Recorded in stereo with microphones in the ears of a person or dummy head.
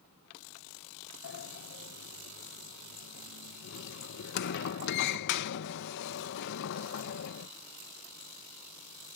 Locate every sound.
1.2 s a sliding door: 65° left (ahead or behind)